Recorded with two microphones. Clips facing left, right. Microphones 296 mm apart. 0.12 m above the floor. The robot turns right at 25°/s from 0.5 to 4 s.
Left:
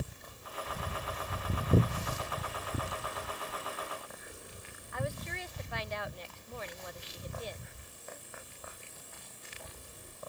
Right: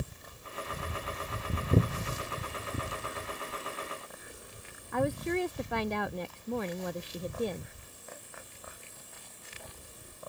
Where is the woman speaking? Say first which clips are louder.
Right 11 dB; 60° right (ahead or behind).